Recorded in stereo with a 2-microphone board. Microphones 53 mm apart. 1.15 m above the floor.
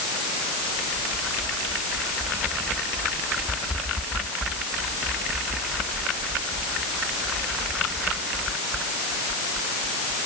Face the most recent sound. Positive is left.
No sound to turn to.